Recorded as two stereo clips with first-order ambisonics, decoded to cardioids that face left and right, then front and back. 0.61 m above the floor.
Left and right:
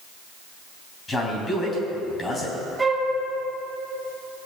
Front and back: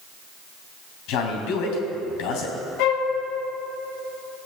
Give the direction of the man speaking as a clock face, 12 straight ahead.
11 o'clock.